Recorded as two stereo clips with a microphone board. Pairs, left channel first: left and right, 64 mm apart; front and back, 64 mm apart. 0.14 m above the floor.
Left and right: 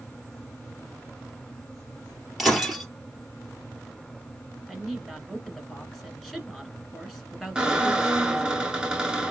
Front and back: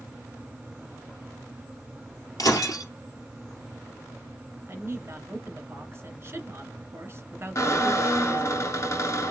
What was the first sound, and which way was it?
Breaking glass, 5° right.